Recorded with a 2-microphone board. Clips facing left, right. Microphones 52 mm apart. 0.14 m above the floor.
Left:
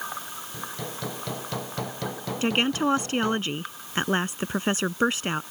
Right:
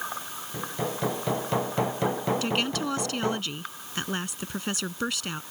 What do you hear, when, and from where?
0.5 s hammering: 25° right (ahead or behind)
2.4 s a woman speaking: 30° left (ahead or behind)